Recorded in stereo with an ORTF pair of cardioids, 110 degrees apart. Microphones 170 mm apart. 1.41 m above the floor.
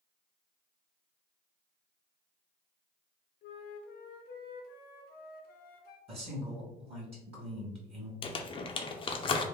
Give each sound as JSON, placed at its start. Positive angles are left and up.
{"t": 3.4, "sound": "a flute", "azimuth_deg": 70, "distance_m": 0.6}
{"t": 6.1, "sound": "a man speaking", "azimuth_deg": -35, "distance_m": 1.3}
{"t": 8.2, "sound": "crumpling", "azimuth_deg": 30, "distance_m": 0.5}